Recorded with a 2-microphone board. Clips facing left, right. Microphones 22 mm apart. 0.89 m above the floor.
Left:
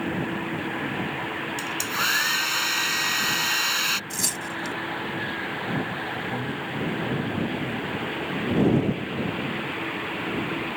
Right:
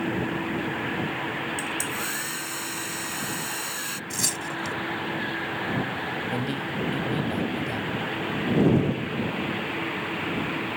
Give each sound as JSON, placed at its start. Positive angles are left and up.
{"t": 1.6, "sound": "a hair dryer", "side_deg": 50}
{"t": 4.1, "sound": "tearing paper", "side_deg": -10}
{"t": 6.3, "sound": "a man speaking", "side_deg": -75}